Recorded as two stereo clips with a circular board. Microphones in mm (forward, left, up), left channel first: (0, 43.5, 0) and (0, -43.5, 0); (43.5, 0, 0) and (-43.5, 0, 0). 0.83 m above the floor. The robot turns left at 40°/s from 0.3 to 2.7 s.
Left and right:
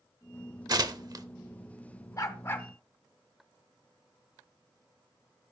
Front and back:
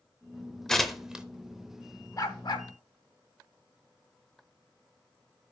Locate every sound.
0.7 s tearing paper: 85° right, 0.7 m; by 1.2 s 105° right, 0.7 m
2.2 s a dog barking: 45° left, 1.0 m; by 2.7 s 25° left, 1.0 m